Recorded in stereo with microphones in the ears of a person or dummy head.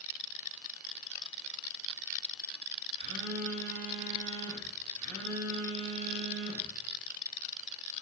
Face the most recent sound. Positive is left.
turn(degrees=-25)  # may be behind; listen again after turning